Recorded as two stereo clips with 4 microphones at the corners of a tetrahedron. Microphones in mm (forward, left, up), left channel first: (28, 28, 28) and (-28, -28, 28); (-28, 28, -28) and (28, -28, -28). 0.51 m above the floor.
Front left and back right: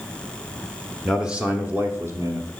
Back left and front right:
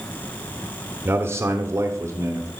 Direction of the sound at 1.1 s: 45° right.